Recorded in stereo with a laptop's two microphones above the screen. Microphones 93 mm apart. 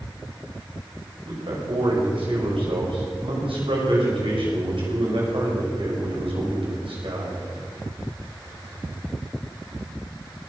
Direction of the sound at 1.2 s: 80° right.